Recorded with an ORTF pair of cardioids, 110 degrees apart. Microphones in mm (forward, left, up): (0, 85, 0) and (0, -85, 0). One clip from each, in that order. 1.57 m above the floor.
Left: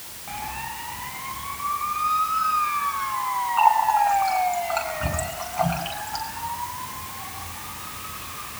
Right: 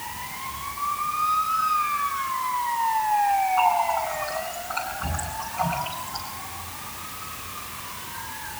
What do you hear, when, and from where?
3.6 s a running tap: 40° left, 8 m